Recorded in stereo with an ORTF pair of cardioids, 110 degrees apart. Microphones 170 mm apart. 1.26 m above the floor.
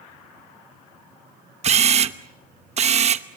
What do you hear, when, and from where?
1.6 s a camera shutter: 40° right, 1.0 m